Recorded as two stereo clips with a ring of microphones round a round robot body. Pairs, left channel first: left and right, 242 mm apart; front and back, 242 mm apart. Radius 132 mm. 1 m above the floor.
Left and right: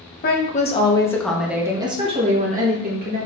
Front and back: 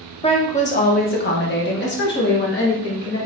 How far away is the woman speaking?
About 1.0 m.